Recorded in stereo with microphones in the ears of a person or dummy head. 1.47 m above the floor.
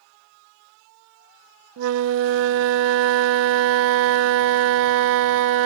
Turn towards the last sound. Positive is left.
turn(degrees=-75)  # may be behind; listen again after turning